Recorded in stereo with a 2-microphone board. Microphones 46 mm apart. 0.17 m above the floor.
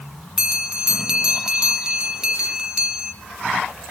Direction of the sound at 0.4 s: 20° right (ahead or behind).